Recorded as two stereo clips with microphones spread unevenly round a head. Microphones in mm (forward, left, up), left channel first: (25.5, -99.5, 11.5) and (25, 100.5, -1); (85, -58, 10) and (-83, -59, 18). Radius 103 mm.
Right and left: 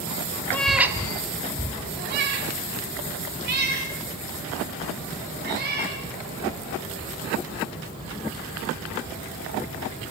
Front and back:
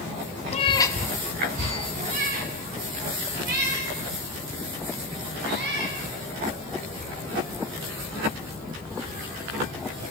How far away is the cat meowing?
About 1.1 m.